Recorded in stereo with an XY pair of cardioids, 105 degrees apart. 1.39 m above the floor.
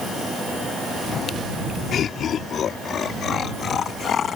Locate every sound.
1.9 s laughter: 60° left; by 4.4 s 55° left